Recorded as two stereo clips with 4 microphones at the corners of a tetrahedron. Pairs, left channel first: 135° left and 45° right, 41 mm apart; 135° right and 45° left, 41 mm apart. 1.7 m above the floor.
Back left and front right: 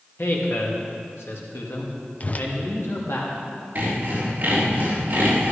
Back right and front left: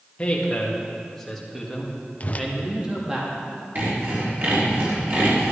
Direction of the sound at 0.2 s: 160° left.